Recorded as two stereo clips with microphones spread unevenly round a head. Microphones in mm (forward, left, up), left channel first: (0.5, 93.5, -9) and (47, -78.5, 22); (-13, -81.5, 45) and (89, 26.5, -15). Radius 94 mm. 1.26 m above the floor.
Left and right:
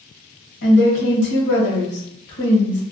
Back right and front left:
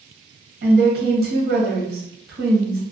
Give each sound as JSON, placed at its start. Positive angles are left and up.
{"t": 0.6, "sound": "a woman speaking", "azimuth_deg": 80, "distance_m": 1.1}